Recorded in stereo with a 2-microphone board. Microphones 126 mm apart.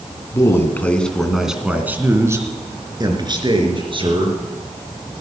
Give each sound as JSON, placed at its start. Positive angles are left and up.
{"t": 0.3, "sound": "a man speaking", "side_deg": 25, "distance_m": 2.0}